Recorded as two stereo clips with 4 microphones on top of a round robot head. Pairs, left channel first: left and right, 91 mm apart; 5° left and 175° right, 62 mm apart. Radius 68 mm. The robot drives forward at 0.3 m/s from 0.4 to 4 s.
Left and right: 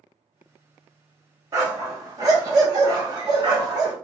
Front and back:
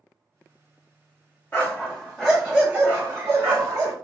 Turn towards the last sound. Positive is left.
turn(degrees=-145)